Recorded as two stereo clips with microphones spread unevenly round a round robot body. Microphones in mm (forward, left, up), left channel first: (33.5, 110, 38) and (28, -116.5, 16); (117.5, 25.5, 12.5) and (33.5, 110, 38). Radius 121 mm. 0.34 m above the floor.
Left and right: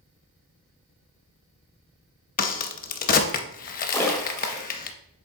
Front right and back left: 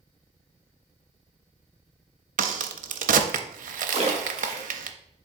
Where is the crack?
145° left, 0.6 m.